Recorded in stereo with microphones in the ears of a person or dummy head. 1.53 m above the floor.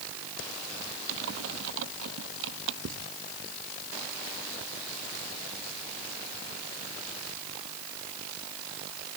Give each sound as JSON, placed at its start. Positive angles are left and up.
{"t": 1.1, "sound": "typing on a keyboard", "side_deg": -80}
{"t": 2.8, "sound": "writing", "side_deg": -90}